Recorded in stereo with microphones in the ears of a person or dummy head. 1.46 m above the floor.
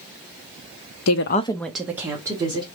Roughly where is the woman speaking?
Left.